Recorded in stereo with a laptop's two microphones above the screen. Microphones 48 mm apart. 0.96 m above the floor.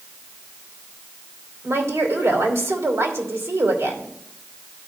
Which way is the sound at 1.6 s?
80° right.